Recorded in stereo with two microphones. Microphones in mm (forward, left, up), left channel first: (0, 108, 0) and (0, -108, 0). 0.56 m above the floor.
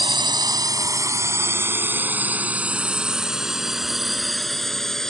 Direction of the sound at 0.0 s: 20° right (ahead or behind).